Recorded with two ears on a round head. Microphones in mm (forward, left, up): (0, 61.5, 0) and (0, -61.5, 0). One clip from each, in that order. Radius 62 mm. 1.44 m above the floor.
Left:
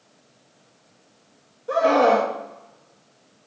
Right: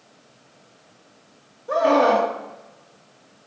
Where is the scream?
25° left (ahead or behind), 1.9 m.